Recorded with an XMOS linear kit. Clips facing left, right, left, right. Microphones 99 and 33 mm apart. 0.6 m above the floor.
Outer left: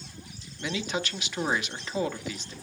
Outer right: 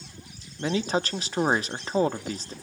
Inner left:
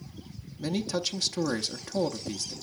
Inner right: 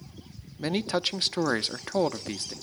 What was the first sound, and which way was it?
A man speaking, 35° right (ahead or behind).